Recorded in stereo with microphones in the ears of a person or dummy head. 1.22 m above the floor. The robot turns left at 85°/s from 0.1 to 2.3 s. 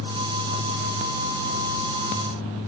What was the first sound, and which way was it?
Only background noise.